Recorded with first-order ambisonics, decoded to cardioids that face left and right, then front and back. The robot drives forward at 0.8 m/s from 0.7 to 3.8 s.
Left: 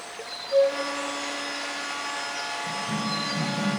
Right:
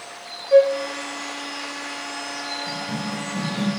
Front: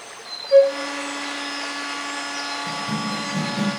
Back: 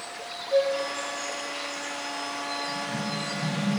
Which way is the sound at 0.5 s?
55° right.